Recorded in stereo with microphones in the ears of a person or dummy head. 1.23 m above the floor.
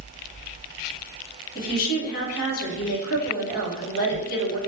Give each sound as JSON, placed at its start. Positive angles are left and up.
{"t": 1.6, "sound": "a woman speaking", "side_deg": 50, "distance_m": 1.1}